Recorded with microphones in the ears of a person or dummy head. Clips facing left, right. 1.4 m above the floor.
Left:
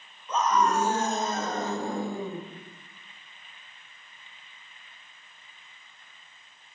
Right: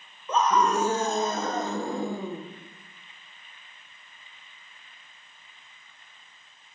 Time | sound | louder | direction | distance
0.3 | a scream | right 1 dB | 55° right (ahead or behind) | 1.3 m